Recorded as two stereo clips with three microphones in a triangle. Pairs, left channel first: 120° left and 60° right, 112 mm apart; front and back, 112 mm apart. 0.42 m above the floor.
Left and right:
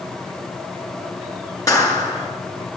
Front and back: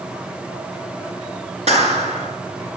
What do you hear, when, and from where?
1.7 s a clap: straight behind, 4 m